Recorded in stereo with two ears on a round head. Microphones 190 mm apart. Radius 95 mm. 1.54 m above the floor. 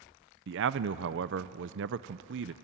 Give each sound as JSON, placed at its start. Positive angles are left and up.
{"t": 0.5, "sound": "a man speaking", "side_deg": -60, "distance_m": 0.6}